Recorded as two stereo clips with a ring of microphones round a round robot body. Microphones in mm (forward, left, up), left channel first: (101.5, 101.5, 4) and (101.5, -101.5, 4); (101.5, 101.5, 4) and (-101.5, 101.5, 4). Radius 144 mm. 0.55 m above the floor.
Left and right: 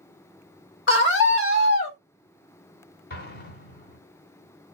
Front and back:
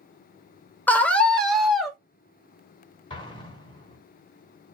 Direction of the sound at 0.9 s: 80° left.